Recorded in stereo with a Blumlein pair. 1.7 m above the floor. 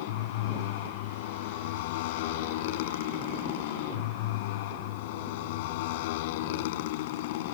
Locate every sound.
0.0 s a motorcycle: 50° left